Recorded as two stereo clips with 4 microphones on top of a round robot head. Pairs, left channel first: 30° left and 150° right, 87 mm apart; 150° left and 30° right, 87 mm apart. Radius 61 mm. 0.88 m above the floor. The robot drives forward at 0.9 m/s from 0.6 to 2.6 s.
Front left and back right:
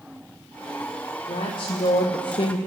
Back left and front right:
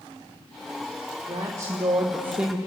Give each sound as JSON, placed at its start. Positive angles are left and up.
{"t": 1.3, "sound": "a woman speaking", "azimuth_deg": 15, "distance_m": 1.7}